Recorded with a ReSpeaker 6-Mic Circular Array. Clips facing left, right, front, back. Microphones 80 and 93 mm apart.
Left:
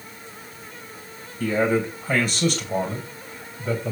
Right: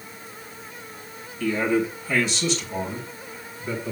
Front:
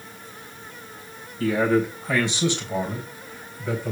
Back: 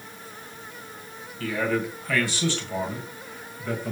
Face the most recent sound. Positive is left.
turn(degrees=85)